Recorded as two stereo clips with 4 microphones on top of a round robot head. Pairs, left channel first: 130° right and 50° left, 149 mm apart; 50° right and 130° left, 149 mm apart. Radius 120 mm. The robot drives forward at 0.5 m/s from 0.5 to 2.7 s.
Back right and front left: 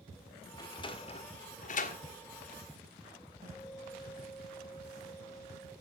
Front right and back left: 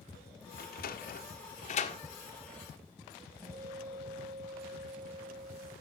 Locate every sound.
0.6 s a sliding door: 65° right, 1.1 m; by 2.0 s 100° right, 1.0 m
3.4 s a guitar: 60° left, 4.5 m